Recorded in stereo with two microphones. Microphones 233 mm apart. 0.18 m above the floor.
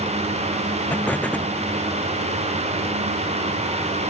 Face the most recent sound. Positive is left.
turn(degrees=5)  # may be behind; listen again after turning